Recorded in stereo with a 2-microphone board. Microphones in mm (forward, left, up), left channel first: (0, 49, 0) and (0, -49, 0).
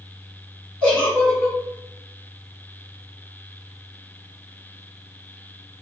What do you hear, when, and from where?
0.8 s a giggle: 5° left (ahead or behind), 1.4 m